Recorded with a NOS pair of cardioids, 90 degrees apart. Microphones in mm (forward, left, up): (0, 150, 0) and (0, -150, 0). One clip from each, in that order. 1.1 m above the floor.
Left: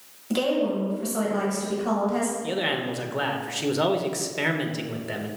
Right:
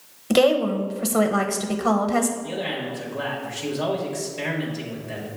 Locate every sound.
0.3 s a woman speaking: 50° right, 0.8 m
2.4 s a man speaking: 40° left, 0.9 m